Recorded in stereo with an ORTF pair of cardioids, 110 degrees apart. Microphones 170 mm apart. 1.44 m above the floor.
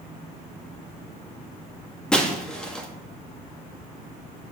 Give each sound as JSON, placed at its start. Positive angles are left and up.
{"t": 2.1, "sound": "breaking glass", "azimuth_deg": 5, "distance_m": 1.6}